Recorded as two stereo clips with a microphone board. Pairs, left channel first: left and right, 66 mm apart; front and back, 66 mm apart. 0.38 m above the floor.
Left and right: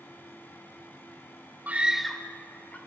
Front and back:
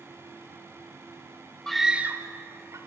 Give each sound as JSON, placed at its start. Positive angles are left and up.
{"t": 1.7, "sound": "a scream", "azimuth_deg": -75, "distance_m": 0.9}